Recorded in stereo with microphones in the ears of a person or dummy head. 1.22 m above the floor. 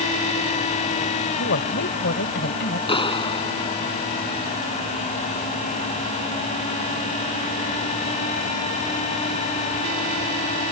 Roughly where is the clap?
Left.